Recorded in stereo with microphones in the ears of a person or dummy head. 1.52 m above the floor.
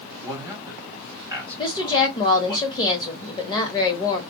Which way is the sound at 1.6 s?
20° left (ahead or behind).